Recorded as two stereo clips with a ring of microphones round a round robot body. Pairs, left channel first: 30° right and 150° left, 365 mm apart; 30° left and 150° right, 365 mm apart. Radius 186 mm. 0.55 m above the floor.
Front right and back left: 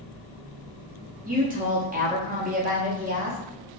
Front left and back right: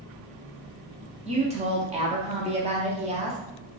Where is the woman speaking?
170° left, 0.6 m.